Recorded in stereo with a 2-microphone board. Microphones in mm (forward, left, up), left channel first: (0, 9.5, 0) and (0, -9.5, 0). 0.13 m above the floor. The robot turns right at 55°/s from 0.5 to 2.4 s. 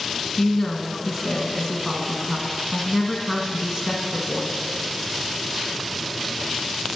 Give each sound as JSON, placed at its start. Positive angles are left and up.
{"t": 0.4, "sound": "a woman speaking", "side_deg": 10, "distance_m": 1.6}